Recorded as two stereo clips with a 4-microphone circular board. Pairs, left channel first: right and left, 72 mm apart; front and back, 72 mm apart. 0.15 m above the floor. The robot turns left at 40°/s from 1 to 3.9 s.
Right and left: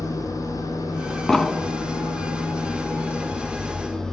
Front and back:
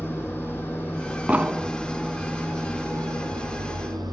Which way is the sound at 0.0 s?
60° right.